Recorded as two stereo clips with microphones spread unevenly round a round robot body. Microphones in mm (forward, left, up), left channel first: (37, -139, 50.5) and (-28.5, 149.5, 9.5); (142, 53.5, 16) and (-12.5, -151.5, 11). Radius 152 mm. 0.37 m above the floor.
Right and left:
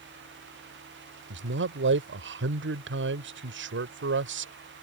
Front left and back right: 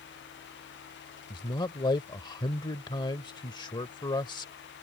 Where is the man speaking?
125° left.